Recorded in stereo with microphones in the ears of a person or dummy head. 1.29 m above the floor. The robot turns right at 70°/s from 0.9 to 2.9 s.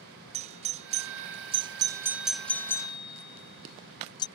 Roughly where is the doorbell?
Right.